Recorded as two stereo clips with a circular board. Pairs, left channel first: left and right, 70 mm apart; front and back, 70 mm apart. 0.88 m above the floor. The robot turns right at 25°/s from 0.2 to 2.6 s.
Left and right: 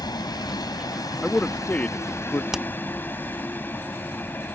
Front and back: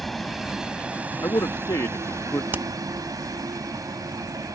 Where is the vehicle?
90° left; by 4.5 s 150° left.